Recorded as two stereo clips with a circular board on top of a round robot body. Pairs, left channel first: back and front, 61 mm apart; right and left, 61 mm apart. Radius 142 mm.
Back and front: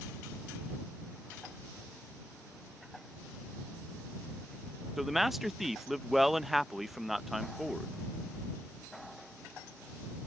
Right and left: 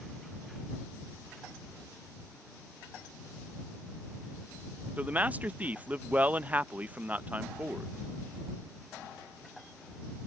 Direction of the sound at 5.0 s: 85° left.